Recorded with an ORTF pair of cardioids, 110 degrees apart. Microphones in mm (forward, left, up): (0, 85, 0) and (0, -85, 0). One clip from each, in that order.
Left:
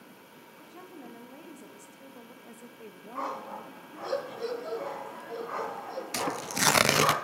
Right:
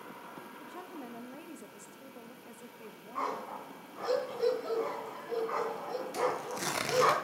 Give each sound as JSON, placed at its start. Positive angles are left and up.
{"t": 0.6, "sound": "a woman speaking", "azimuth_deg": -20, "distance_m": 1.9}
{"t": 3.1, "sound": "a dog barking", "azimuth_deg": -5, "distance_m": 3.5}
{"t": 6.1, "sound": "tearing paper", "azimuth_deg": 60, "distance_m": 0.6}